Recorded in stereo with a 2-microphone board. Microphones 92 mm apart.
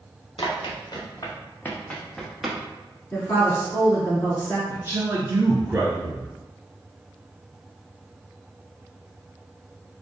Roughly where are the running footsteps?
Left.